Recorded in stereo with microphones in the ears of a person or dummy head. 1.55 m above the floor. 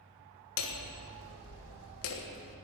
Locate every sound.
0.6 s hammering: 65° left (ahead or behind), 1.4 m